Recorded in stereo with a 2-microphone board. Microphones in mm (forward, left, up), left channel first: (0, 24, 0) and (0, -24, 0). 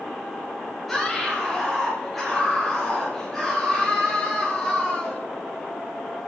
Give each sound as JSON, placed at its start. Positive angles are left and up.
{"t": 0.9, "sound": "a scream", "side_deg": 0, "distance_m": 4.0}